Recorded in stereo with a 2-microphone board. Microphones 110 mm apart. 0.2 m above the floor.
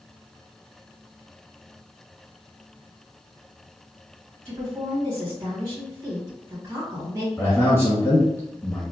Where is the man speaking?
25° left (ahead or behind), 1.9 m.